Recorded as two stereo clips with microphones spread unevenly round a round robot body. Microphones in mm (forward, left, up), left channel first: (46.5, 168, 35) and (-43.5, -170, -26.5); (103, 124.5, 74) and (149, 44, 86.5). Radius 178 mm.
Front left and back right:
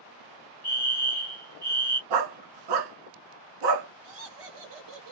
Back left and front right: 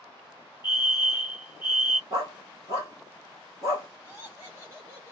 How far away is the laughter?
About 1.6 m.